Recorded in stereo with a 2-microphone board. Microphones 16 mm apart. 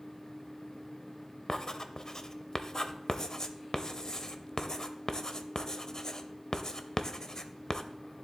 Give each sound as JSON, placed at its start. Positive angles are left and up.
{"t": 1.5, "sound": "writing", "side_deg": 35, "distance_m": 0.7}